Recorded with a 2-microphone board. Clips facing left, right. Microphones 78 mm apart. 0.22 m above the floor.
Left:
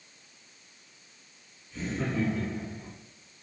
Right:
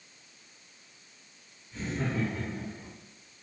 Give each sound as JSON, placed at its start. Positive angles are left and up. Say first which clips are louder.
{"t": 1.7, "sound": "laughter", "louder": "left 1 dB", "side_deg": -25, "distance_m": 1.0}